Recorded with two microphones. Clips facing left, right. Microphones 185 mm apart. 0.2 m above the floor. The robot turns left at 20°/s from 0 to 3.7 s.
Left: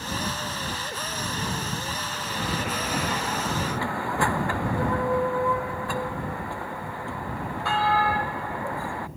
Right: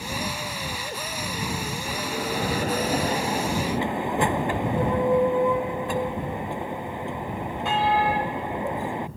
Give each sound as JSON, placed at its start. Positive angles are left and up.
{"t": 1.9, "sound": "a bell", "azimuth_deg": -125}